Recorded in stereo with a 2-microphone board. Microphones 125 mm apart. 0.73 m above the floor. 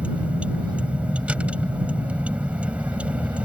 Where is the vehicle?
10° right (ahead or behind).